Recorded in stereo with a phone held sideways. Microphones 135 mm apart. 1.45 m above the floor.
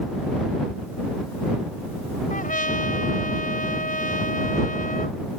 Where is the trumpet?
80° left.